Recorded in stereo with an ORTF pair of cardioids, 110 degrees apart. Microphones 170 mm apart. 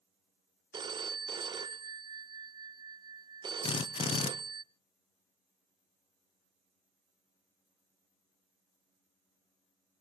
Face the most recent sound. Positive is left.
turn(degrees=30)